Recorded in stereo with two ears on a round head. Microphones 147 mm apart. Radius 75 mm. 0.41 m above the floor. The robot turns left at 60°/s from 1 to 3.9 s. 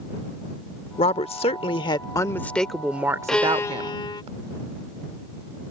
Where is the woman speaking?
105° left; by 4.3 s 70° right.